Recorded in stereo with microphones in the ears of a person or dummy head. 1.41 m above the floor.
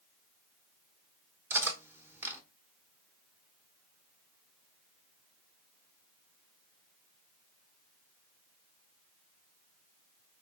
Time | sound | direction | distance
1.5 | cutlery clinking | 10° right (ahead or behind) | 0.9 m